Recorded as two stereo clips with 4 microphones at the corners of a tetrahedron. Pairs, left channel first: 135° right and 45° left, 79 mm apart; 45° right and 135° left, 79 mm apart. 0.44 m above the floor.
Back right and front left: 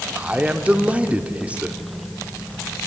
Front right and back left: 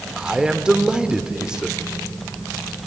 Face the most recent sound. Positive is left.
turn(degrees=75)